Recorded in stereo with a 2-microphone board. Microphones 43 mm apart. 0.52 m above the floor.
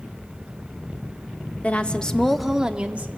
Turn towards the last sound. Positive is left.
turn(degrees=-35)  # may be behind; listen again after turning